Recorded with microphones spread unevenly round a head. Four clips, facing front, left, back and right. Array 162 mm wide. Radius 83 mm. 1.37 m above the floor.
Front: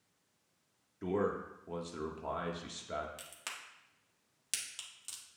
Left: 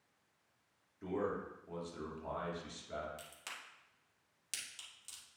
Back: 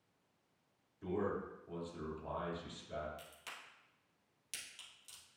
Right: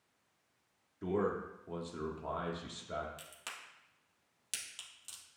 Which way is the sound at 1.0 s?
30° right.